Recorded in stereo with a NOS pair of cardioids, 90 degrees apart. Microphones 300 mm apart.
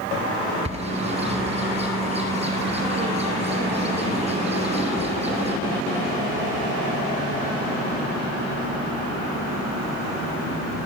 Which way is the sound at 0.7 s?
20° right.